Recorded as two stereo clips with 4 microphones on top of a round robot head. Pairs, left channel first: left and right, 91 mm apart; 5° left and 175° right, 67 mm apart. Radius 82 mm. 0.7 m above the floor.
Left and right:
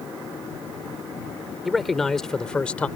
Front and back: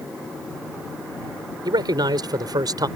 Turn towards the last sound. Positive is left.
turn(degrees=170)